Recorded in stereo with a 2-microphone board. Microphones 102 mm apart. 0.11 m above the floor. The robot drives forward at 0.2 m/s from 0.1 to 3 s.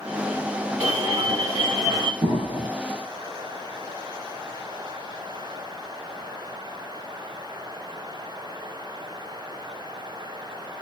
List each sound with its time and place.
0.8 s an alarm: 35° right (ahead or behind), 2.5 m
2.2 s an explosion: 45° right (ahead or behind), 1.8 m